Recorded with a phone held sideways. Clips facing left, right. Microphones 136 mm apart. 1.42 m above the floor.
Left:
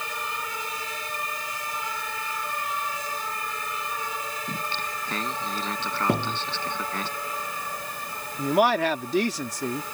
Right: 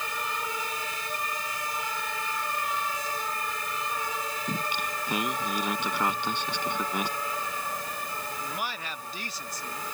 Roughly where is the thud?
Left.